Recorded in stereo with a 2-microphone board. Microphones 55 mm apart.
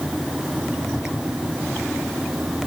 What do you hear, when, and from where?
Only background noise.